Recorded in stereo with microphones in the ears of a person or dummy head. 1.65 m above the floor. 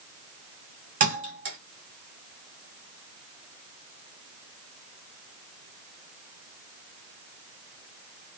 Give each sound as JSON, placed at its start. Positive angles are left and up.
{"t": 1.0, "sound": "a thud", "side_deg": -45, "distance_m": 1.9}